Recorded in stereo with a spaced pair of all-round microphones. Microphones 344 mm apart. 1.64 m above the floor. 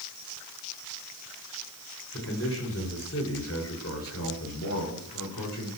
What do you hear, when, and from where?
2.1 s a man speaking: 40° left (ahead or behind), 6.5 m; by 5.7 s 55° left (ahead or behind), 6 m